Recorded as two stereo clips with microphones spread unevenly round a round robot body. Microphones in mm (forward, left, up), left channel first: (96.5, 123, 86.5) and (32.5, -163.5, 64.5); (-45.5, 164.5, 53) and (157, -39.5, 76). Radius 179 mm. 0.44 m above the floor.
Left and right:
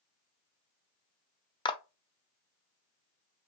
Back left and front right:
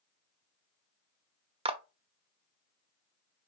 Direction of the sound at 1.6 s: 15° left.